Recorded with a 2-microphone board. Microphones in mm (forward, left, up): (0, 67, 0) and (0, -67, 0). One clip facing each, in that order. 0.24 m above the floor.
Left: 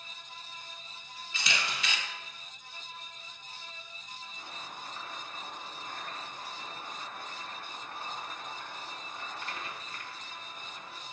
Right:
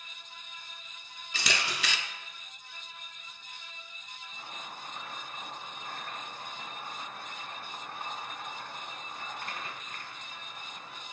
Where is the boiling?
50° right (ahead or behind), 2 m.